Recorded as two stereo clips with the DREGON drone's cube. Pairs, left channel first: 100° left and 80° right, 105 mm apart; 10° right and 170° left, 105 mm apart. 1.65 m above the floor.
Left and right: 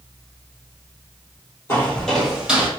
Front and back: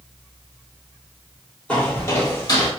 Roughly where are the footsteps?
Ahead left.